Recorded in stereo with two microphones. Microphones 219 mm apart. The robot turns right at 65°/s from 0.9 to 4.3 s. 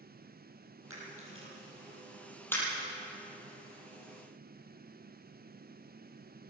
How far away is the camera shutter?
About 7.5 m.